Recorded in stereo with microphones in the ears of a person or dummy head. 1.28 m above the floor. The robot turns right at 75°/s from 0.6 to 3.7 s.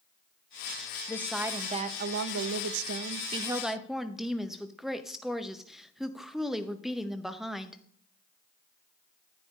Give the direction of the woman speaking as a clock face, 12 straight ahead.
7 o'clock.